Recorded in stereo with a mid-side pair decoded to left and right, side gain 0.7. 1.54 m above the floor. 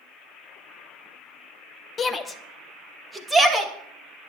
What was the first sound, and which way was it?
A shout, 25° left.